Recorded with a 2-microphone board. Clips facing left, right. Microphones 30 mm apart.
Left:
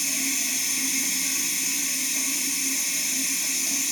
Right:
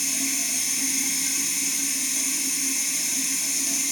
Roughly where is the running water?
Centre.